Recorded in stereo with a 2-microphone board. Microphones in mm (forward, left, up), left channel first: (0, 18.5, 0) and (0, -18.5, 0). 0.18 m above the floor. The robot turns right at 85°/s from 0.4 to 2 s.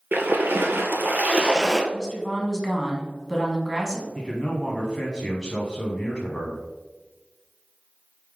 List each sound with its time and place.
0.1 s a splash: 115° right, 0.7 m; by 1.8 s 5° left, 0.7 m
1.9 s a woman speaking: 15° right (ahead or behind), 1.1 m
4.2 s a man speaking: 15° left (ahead or behind), 1.1 m